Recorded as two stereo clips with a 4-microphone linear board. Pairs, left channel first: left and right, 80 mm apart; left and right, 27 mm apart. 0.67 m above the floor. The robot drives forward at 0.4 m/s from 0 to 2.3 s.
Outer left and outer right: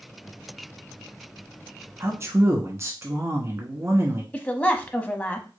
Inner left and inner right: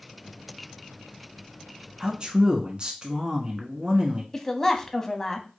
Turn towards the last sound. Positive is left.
turn(degrees=20)  # may be behind; listen again after turning